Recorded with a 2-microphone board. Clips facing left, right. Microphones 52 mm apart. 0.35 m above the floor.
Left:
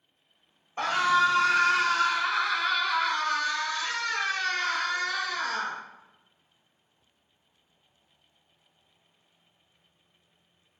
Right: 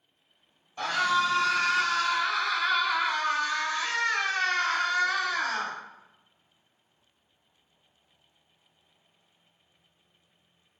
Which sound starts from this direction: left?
A scream, at 0.8 s.